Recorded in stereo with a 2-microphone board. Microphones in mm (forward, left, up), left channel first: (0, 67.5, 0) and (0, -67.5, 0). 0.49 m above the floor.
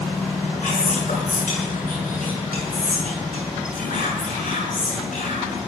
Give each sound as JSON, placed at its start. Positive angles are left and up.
{"t": 0.6, "sound": "whispering", "side_deg": 80, "distance_m": 7.5}